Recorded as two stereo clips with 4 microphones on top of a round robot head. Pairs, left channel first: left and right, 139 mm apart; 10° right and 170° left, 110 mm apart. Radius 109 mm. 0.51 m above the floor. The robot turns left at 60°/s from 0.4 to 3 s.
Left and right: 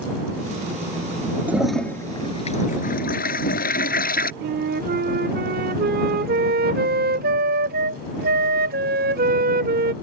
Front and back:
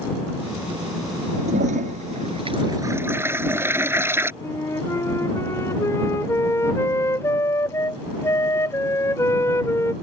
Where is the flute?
80° right.